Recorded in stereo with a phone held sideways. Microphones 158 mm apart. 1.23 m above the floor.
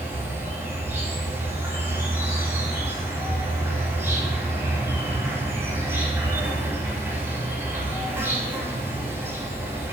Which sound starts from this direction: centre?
An insect, at 0.0 s.